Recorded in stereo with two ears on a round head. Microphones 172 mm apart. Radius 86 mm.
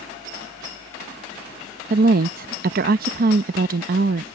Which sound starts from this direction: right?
A woman speaking, at 1.9 s.